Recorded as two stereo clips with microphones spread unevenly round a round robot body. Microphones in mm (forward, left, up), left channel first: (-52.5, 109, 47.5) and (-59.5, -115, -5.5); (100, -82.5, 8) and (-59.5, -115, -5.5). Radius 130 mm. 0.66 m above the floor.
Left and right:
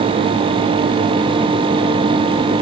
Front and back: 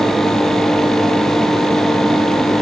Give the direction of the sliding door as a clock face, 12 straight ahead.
I don't hear a sliding door.